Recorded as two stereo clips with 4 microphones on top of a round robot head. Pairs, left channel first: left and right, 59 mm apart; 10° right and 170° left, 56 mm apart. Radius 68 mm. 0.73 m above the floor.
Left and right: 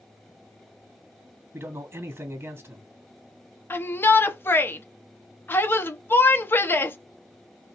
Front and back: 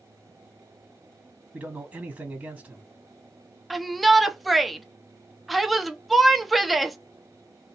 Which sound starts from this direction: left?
A shout, at 3.7 s.